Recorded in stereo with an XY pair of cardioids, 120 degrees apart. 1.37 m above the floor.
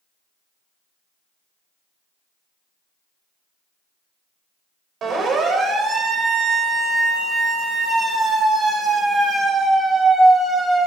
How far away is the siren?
About 4.5 m.